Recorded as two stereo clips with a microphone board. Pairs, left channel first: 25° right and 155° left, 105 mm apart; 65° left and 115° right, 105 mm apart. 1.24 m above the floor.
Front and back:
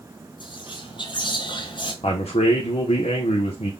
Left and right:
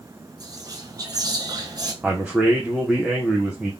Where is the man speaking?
30° right, 0.8 m.